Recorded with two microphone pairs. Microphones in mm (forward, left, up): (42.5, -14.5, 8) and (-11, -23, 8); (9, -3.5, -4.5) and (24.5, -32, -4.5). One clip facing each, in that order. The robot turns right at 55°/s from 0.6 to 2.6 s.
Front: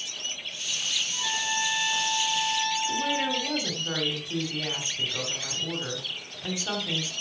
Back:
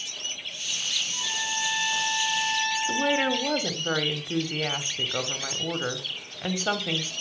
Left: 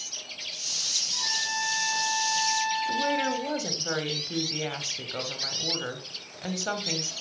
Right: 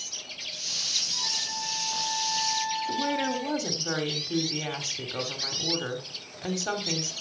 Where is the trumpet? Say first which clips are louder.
Front 1 dB, left 2 dB; 65° left, 5 m; by 3.5 s 145° left, 5 m.